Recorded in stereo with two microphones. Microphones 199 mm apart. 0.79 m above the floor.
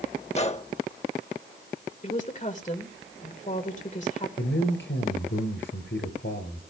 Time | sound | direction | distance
0.3 | a gunshot | 35° left (ahead or behind) | 0.7 m
2.0 | a woman speaking | 40° left (ahead or behind) | 2.5 m
4.4 | a man speaking | 75° left (ahead or behind) | 3.5 m